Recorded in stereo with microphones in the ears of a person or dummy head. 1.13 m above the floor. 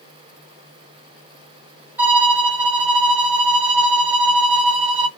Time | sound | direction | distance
2.0 | a violin | 15° right (ahead or behind) | 1.9 m